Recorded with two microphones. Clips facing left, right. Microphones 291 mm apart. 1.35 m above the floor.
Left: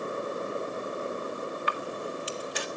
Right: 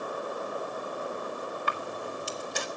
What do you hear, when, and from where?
1.7 s a camera shutter: 50° right (ahead or behind), 1.6 m